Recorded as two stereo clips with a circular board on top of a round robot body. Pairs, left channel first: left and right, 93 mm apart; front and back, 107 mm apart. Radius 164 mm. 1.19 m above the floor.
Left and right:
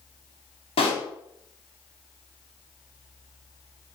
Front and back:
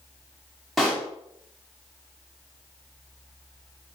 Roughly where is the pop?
Left.